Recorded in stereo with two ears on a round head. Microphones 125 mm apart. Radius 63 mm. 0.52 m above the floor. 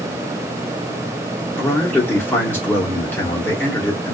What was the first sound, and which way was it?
A man speaking, 15° left (ahead or behind).